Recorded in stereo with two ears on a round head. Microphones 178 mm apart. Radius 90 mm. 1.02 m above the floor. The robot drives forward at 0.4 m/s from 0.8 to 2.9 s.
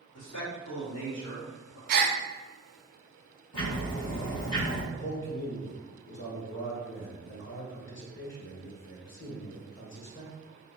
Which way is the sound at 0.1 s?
70° left (ahead or behind).